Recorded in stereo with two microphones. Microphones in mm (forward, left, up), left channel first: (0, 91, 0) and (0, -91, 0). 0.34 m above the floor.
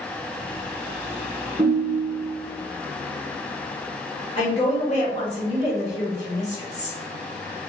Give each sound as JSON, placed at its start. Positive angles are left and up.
{"t": 1.6, "sound": "a ringtone", "side_deg": -30, "distance_m": 1.8}
{"t": 4.4, "sound": "a woman speaking", "side_deg": 40, "distance_m": 1.4}